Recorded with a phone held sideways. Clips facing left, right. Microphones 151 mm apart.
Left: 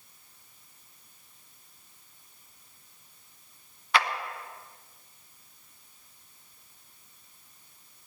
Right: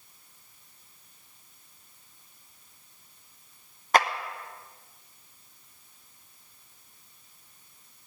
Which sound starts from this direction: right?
A clap, at 3.9 s.